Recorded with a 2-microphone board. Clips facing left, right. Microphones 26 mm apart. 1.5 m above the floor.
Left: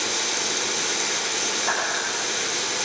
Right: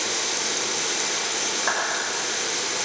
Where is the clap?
40° right (ahead or behind), 6.5 m.